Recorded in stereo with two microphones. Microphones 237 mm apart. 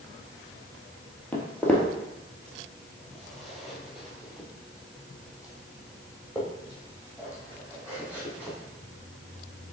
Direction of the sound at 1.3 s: 5° left (ahead or behind).